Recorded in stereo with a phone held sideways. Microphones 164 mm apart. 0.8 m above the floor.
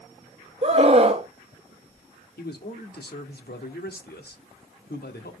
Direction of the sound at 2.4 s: 75° left (ahead or behind).